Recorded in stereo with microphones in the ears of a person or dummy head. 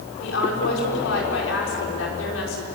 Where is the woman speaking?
90° left, 5.5 m.